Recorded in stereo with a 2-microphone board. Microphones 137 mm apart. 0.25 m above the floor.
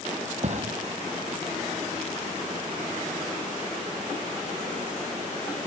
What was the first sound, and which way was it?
A thud, 55° right (ahead or behind).